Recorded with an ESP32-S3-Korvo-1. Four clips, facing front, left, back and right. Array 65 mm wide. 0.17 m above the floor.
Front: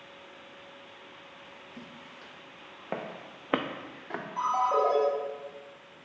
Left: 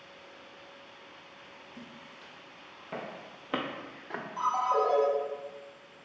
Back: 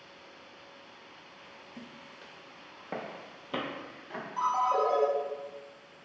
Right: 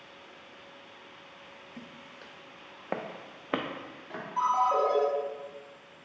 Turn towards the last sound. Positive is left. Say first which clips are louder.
# right 2 dB, front 1 dB
turn(degrees=-50)